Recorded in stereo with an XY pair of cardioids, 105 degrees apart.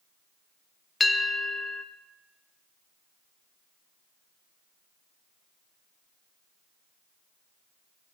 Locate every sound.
1.0 s a bell: 25° left, 0.5 m